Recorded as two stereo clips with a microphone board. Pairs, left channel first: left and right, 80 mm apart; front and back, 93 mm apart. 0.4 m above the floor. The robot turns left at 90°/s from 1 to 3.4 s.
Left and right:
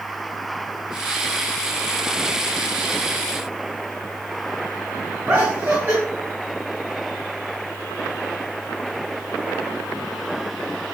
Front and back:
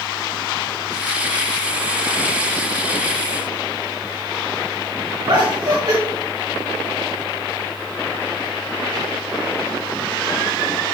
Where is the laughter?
155° right, 3 m.